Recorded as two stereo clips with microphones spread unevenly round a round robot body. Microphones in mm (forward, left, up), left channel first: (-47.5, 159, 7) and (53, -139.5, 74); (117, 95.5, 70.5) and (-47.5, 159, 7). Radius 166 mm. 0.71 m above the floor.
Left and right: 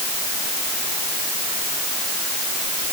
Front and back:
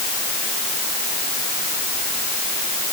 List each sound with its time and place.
Only background noise.